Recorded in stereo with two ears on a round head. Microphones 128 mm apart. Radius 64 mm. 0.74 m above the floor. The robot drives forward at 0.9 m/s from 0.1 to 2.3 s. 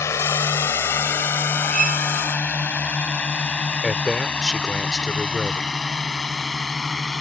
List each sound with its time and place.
0.0 s a drone: 20° left (ahead or behind); by 7.2 s 5° left (ahead or behind)
1.7 s a violin: 50° right (ahead or behind); by 2.1 s 55° right (ahead or behind)
3.8 s a man speaking: centre (ahead or behind)